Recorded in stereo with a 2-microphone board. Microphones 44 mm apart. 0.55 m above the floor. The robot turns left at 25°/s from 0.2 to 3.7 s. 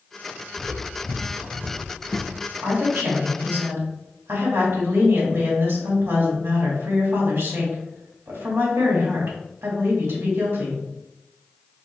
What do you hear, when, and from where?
0.6 s footsteps: 35° right (ahead or behind), 1.2 m; by 2.4 s 60° right (ahead or behind), 1.0 m
2.6 s a woman speaking: 65° right (ahead or behind), 2 m; by 10.8 s 70° right (ahead or behind), 2 m